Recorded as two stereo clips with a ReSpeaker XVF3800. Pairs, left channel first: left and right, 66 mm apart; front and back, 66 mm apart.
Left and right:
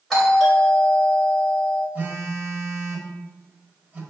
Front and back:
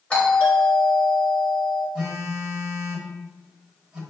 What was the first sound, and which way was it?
A doorbell, 15° left.